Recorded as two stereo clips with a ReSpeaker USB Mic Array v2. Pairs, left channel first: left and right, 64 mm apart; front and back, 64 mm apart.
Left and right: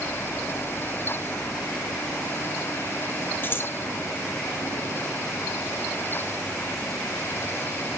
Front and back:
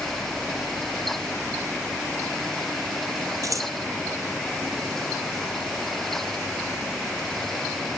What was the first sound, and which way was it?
Scissors, 145° left.